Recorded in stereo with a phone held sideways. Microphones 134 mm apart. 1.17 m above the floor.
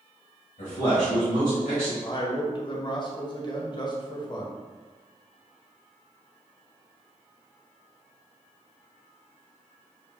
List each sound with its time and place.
0.6 s a man speaking: 70° left (ahead or behind), 1.6 m
2.0 s a man speaking: 35° left (ahead or behind), 0.9 m